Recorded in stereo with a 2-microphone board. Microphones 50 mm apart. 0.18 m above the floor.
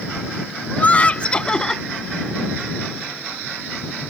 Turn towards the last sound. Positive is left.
turn(degrees=10)  # may be behind; listen again after turning